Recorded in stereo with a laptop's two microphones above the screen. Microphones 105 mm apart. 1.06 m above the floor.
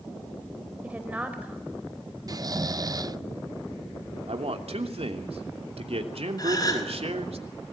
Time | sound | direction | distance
0.8 | a woman speaking | 15° right (ahead or behind) | 5.5 m
2.3 | snoring | 40° right (ahead or behind) | 0.6 m
4.3 | a man speaking | 75° right (ahead or behind) | 3 m
6.4 | a gasp | 40° left (ahead or behind) | 4 m